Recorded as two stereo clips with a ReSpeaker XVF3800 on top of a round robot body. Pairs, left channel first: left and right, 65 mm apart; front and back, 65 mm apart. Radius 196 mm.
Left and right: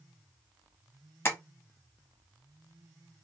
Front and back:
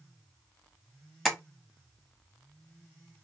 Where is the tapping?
90° left, 1.3 m.